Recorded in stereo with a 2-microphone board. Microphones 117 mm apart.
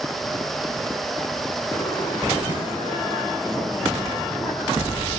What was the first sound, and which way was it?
Laughter, 20° left (ahead or behind).